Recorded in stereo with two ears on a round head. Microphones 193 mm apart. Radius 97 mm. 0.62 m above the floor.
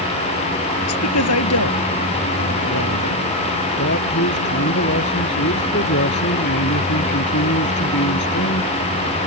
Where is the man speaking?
55° left (ahead or behind).